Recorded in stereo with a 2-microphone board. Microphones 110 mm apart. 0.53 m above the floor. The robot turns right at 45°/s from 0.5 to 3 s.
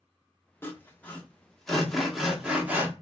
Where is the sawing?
20° left (ahead or behind), 0.6 m; by 2.9 s 15° right (ahead or behind), 0.6 m.